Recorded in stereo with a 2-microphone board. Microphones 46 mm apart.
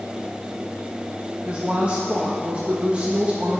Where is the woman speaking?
25° right (ahead or behind), 1.1 m.